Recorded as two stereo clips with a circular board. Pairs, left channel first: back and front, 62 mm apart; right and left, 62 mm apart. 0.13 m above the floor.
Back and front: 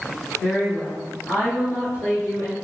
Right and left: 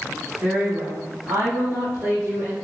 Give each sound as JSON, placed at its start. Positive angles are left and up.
{"t": 0.4, "sound": "a woman speaking", "azimuth_deg": 120, "distance_m": 1.8}